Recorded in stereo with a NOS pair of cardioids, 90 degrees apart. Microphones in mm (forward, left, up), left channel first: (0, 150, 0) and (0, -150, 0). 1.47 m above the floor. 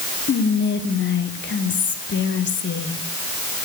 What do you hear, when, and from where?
0.3 s whispering: 40° left, 1.2 m